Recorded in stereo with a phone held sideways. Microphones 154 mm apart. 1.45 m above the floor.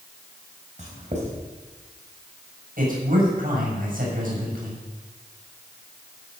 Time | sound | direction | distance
0.8 | writing | 50° right (ahead or behind) | 3.5 m
2.8 | a man speaking | 65° right (ahead or behind) | 7 m